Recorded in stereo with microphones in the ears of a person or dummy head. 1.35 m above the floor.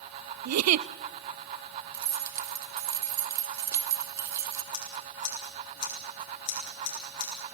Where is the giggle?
85° right, 0.6 m.